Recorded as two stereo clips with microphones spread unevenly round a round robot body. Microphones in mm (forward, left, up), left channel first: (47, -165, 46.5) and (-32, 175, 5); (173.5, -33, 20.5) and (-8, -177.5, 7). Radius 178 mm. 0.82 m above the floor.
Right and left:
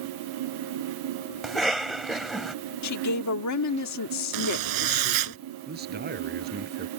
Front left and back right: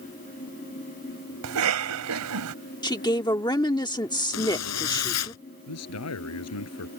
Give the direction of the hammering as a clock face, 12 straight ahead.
I don't hear hammering.